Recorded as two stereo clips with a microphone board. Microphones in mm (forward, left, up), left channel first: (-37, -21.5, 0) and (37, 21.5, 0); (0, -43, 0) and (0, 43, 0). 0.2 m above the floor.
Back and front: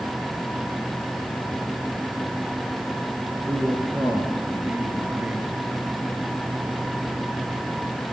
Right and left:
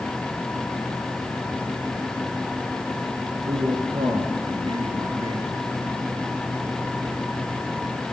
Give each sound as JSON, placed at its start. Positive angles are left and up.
{"t": 3.5, "sound": "a man speaking", "azimuth_deg": 100, "distance_m": 4.0}